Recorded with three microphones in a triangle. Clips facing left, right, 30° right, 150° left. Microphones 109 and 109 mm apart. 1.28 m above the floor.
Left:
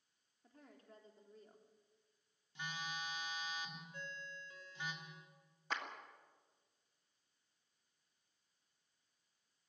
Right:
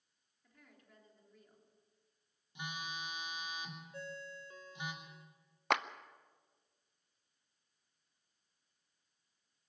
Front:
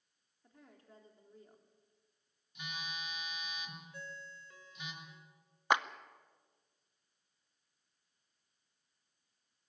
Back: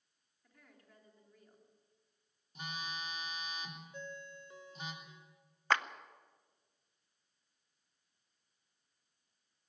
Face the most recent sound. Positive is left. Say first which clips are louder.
# right 10 dB, front 2 dB
turn(degrees=-105)